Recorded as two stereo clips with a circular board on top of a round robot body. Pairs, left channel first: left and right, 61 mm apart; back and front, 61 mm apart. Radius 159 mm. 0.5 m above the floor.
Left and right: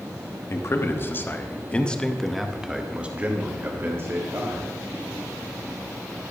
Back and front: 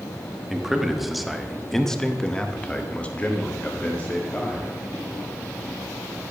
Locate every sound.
0.5 s a man speaking: 80° left, 1.4 m; by 4.7 s 120° right, 1.7 m